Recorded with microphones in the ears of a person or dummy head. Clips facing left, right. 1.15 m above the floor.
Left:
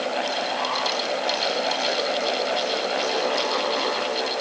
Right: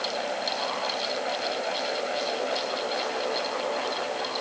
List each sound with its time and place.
Only background noise.